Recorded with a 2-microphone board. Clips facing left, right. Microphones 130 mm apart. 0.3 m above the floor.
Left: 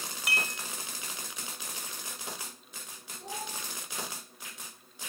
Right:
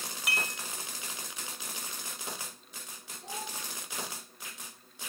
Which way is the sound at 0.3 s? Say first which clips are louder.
Left 1 dB; centre (ahead or behind).